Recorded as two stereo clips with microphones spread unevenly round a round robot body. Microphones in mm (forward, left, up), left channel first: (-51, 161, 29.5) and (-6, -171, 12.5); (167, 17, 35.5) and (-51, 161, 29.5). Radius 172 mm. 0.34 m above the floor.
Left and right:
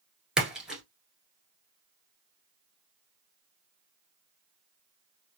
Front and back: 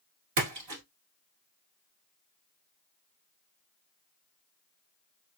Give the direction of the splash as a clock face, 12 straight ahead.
6 o'clock.